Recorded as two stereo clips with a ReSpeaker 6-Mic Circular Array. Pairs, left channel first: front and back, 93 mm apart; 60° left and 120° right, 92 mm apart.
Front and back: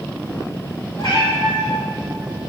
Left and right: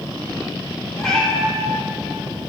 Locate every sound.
1.0 s a cat meowing: 25° right, 3.5 m